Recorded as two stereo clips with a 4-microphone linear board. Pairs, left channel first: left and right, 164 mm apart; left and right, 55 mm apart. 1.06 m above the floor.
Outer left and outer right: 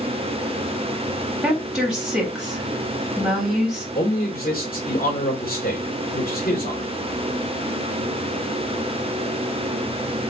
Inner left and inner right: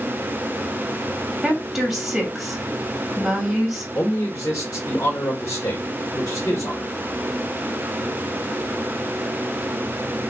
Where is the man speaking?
65° left (ahead or behind), 2 m.